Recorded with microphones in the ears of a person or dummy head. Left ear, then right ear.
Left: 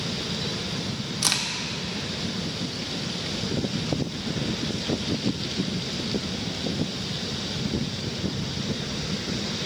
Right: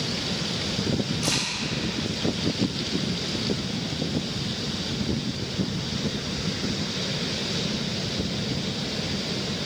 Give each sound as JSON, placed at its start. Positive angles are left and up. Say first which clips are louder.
{"t": 1.2, "sound": "a crack", "louder": "left 3 dB", "side_deg": 65, "distance_m": 0.9}